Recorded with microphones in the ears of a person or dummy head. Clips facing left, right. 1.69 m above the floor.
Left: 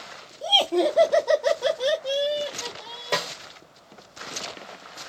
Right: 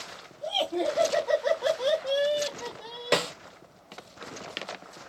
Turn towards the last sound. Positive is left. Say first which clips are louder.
# right 3 dB
turn(degrees=-20)  # may be behind; listen again after turning